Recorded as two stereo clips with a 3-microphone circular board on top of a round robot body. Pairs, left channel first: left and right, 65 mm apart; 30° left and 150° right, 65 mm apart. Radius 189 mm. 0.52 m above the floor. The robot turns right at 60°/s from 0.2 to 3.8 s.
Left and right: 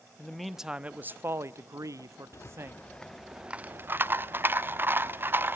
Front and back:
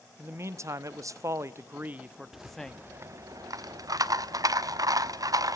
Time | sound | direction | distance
0.2 | a man speaking | 165° left | 1.0 m
2.3 | a rattle | 125° left | 1.0 m